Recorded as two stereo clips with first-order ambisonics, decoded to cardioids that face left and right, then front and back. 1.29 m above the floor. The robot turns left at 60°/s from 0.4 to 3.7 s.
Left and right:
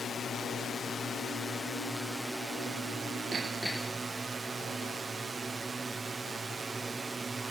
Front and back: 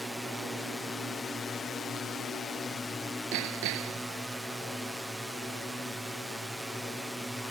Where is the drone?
95° left; by 7.5 s 105° right.